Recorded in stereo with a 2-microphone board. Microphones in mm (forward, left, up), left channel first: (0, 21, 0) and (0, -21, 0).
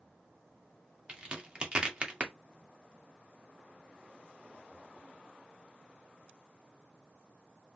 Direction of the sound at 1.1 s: 25° right (ahead or behind).